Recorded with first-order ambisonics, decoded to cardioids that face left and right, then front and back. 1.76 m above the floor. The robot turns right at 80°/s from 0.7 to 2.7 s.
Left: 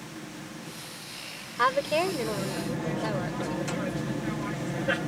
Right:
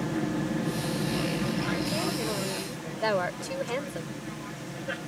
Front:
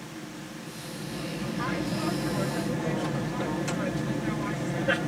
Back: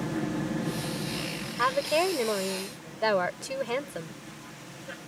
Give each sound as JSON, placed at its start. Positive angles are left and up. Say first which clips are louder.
{"t": 0.0, "sound": "an aircraft", "louder": "right 11 dB, back 9 dB", "azimuth_deg": -130}
{"t": 1.6, "sound": "a woman speaking", "louder": "left 11 dB, back 7 dB", "azimuth_deg": 115}